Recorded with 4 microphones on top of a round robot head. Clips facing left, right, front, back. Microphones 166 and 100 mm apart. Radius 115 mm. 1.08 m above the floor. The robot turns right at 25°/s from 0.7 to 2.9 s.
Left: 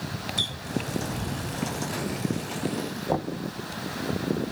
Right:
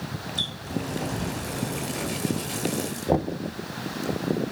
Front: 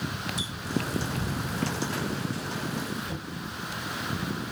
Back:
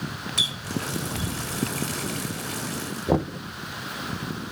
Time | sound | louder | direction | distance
0.4 | a running tap | right 1 dB, even | 170° left | ?
3.1 | knocking | right 5 dB, back 13 dB | 160° right | ?